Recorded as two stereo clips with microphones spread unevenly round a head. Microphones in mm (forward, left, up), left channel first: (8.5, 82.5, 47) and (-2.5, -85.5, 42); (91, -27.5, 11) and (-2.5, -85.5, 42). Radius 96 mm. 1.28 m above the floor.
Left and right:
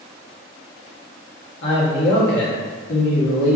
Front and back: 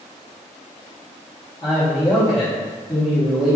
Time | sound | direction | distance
1.6 | a man speaking | 85° left | 1.3 m